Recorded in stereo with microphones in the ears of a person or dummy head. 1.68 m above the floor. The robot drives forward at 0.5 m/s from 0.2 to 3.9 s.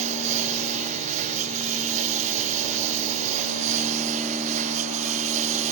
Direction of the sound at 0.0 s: 45° right (ahead or behind).